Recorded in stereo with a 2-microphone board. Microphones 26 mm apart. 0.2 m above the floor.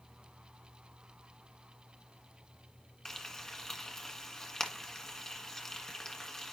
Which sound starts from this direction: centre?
Frying, at 3.0 s.